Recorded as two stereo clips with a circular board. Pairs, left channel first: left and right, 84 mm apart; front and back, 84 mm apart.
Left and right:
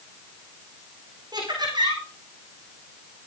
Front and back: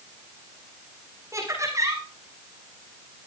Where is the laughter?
125° right, 7 m.